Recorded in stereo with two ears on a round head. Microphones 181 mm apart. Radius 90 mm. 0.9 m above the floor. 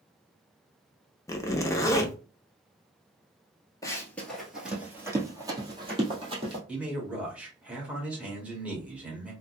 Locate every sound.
1.3 s a zipper: 15° left (ahead or behind), 0.6 m
3.8 s running footsteps: 15° left (ahead or behind), 0.9 m; by 6.6 s 30° right (ahead or behind), 1.9 m
6.7 s a man speaking: 5° right (ahead or behind), 1.4 m